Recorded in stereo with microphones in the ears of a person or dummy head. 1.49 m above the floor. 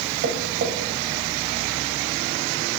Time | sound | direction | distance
0.2 | tapping | 45° right (ahead or behind) | 0.7 m